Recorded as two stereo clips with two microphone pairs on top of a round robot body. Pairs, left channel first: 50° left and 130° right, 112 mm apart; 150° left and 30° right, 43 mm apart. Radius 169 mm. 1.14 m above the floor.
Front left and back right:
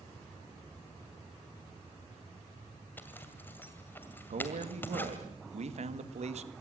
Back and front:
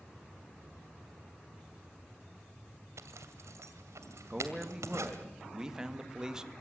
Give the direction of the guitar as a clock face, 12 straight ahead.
I don't hear a guitar.